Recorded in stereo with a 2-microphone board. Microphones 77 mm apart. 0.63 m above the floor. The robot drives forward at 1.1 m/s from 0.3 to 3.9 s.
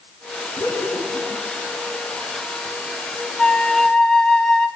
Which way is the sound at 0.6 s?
70° left (ahead or behind).